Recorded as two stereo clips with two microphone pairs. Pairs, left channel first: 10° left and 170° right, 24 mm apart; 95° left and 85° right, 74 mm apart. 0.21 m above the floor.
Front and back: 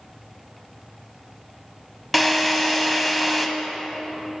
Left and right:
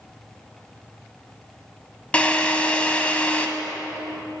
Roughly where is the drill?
Left.